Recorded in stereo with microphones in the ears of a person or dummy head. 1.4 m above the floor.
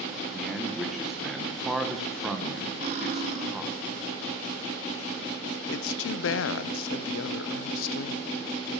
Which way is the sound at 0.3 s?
5° right (ahead or behind).